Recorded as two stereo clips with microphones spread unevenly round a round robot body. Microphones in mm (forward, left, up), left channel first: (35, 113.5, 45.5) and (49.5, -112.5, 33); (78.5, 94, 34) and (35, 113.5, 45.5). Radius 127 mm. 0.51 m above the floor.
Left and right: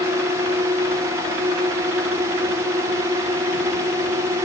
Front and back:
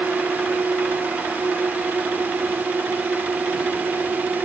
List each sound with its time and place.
0.0 s a drone: 155° right